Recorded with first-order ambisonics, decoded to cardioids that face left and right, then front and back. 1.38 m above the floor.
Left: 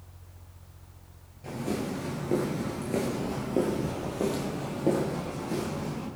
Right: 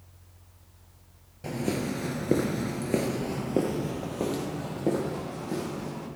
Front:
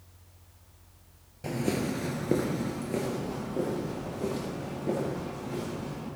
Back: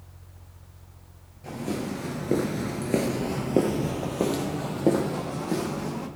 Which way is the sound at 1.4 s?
45° right.